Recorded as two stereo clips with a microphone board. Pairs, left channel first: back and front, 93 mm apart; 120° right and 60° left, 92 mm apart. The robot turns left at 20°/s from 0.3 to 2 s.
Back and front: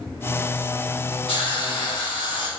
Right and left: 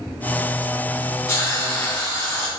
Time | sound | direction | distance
1.3 | a hiss | 170° right | 4 m